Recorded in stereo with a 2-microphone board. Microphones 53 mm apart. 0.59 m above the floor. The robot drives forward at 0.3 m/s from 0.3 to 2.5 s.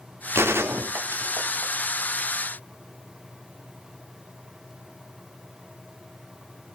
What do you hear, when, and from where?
0.3 s a gunshot: 50° right (ahead or behind), 1.0 m; by 1.7 s 45° right (ahead or behind), 1.1 m